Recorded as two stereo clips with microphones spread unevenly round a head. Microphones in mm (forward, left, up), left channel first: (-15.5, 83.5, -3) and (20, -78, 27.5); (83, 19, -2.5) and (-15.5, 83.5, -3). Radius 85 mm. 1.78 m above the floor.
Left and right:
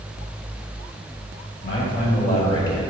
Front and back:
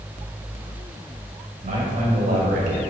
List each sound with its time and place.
1.6 s a man speaking: 140° left, 2 m; by 2.8 s 175° left, 1.7 m